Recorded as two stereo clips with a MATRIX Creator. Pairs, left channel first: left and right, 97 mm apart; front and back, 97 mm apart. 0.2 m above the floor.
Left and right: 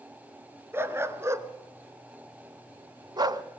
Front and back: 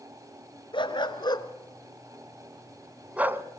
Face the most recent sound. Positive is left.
turn(degrees=-125)